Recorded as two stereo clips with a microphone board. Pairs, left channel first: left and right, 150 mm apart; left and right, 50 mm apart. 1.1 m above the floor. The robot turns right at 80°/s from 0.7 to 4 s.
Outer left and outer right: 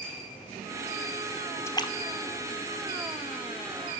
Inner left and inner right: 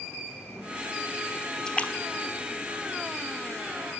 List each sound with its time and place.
1.7 s a splash: 15° left (ahead or behind), 1.3 m; by 3.8 s 10° right (ahead or behind), 1.3 m